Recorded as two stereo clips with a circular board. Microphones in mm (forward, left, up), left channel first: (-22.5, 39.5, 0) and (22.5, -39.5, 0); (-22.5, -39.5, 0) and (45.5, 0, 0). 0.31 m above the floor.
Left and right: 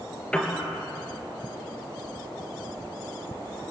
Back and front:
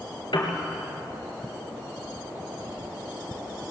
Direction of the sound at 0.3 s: 160° right.